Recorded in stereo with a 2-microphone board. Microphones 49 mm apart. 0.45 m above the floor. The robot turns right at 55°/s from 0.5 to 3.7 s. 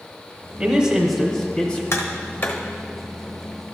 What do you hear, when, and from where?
0.6 s a man speaking: 40° right, 1.0 m; by 1.8 s 30° left, 1.0 m
1.9 s tapping: 60° left (ahead or behind), 1.0 m; by 2.6 s 30° left (ahead or behind), 1.0 m